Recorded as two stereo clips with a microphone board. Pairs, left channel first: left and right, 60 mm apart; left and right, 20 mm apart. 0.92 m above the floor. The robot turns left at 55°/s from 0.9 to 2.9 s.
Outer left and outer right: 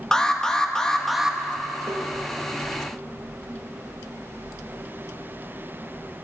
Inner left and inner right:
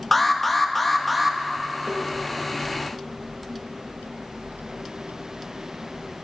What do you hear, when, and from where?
0.1 s an alarm: 10° left (ahead or behind), 0.8 m; by 1.4 s 15° right (ahead or behind), 0.8 m
1.9 s tapping: 60° right (ahead or behind), 1.6 m